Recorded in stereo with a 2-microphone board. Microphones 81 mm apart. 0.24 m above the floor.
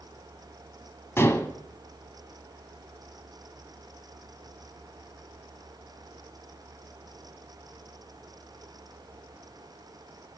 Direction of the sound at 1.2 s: 30° left (ahead or behind).